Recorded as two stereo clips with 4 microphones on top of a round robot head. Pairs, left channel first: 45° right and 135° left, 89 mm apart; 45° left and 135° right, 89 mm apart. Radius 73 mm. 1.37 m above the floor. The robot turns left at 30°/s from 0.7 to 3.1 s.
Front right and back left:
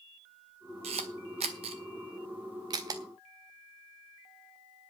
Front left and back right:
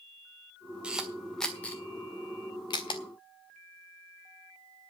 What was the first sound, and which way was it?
A camera shutter, 145° left.